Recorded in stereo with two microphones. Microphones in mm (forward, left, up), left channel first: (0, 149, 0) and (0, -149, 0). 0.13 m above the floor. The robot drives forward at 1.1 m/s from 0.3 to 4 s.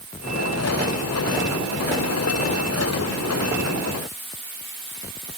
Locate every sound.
Only background noise.